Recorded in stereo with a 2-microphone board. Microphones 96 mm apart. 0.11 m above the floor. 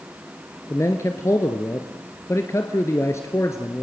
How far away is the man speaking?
About 1.4 m.